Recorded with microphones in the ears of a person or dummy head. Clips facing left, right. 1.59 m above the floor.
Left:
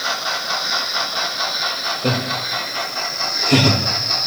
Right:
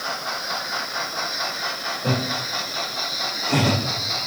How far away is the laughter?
About 7 m.